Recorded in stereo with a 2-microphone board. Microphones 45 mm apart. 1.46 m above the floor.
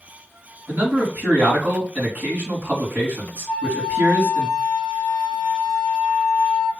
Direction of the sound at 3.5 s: 25° left (ahead or behind).